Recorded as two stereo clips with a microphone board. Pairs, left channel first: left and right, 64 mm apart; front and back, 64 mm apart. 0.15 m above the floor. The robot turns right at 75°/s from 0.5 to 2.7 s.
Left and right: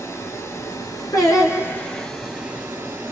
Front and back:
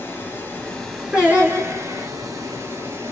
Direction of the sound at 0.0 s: 60° left.